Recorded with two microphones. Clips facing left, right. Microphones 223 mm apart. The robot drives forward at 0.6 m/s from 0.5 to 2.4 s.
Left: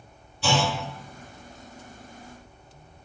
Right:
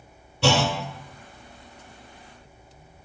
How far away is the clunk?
About 0.6 m.